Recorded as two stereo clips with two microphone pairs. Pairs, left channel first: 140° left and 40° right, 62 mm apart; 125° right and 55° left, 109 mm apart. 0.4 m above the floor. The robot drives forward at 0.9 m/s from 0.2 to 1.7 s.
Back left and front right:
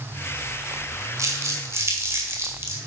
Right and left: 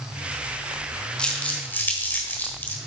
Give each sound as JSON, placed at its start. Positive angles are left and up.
{"t": 1.2, "sound": "crumpling", "azimuth_deg": -45, "distance_m": 2.0}